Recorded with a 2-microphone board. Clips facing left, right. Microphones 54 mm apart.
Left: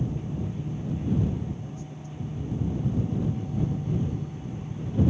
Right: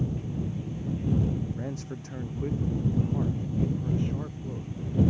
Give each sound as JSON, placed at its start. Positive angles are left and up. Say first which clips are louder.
{"t": 1.5, "sound": "a man speaking", "louder": "right 4 dB", "side_deg": -70}